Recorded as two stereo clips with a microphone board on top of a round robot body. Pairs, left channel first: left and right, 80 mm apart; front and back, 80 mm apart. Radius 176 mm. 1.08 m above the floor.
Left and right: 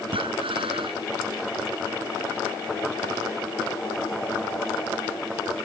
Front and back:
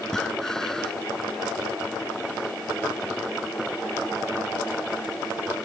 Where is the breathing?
85° right.